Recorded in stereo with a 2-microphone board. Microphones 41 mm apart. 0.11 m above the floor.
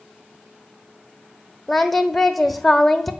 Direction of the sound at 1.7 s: 5° left (ahead or behind).